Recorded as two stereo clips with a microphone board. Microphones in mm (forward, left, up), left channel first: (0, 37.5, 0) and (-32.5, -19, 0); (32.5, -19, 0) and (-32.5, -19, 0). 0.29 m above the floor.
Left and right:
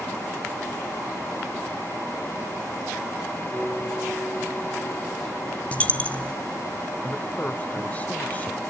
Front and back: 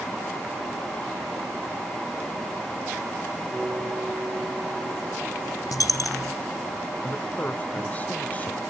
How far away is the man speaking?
About 1.2 m.